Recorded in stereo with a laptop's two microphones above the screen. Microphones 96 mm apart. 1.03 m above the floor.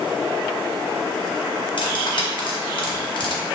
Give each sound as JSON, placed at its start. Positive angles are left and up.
{"t": 1.8, "sound": "cutlery clinking", "side_deg": 55, "distance_m": 0.7}